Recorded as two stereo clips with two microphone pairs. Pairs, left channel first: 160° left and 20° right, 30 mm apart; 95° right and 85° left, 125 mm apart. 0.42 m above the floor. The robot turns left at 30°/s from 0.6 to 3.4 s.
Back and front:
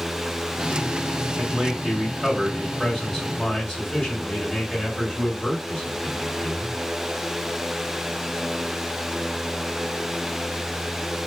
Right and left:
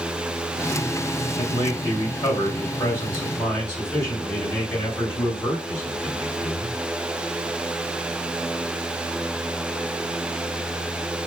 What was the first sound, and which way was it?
A man speaking, 75° right.